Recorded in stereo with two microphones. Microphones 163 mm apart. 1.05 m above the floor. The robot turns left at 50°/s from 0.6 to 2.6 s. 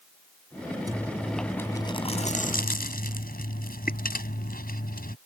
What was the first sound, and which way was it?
Chewing, 155° right.